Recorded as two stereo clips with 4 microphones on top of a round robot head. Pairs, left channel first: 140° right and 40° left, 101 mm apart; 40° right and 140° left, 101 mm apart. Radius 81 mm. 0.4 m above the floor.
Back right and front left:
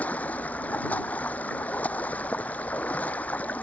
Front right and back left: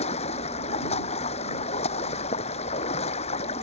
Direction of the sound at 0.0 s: 65° right.